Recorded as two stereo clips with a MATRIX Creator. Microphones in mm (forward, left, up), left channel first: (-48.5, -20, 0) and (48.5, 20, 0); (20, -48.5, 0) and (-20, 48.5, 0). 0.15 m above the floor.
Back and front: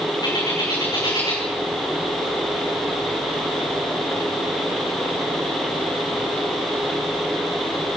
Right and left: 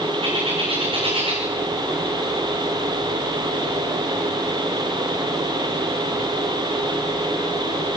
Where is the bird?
150° left, 7.5 m.